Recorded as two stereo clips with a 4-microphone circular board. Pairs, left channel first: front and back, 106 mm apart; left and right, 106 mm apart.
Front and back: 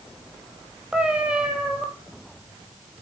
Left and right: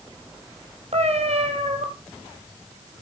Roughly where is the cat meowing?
Right.